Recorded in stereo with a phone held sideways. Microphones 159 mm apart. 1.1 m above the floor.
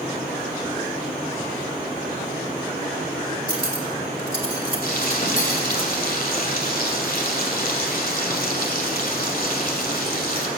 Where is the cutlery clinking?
65° left (ahead or behind), 2.5 m.